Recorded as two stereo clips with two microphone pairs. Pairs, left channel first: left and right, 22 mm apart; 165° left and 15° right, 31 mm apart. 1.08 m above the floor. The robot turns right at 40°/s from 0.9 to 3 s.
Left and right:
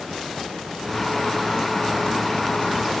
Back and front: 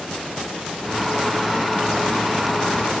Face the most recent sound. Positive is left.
No sound to turn to.